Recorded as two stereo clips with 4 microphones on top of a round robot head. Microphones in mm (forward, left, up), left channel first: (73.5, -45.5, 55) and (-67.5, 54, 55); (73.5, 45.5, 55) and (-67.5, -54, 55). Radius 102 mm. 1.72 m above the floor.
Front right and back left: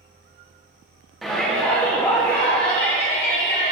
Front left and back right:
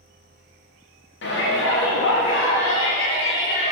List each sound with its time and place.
1.2 s a shout: 55° left, 1.9 m; by 3.7 s 10° left, 1.9 m